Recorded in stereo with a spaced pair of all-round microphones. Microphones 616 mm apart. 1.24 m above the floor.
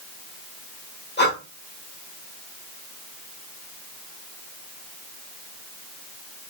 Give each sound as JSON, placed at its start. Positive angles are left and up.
{"t": 1.2, "sound": "breathing", "side_deg": 15, "distance_m": 1.1}